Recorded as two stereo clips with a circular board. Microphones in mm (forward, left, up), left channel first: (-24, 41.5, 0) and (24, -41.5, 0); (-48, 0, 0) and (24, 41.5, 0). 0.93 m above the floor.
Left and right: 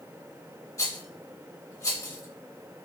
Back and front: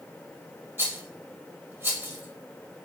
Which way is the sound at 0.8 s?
75° left.